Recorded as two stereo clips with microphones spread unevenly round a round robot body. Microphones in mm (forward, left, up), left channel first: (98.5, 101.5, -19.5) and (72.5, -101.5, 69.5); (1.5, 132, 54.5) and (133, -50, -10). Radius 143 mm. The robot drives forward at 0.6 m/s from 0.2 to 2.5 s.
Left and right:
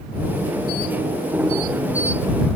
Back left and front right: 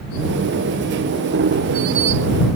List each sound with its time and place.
Only background noise.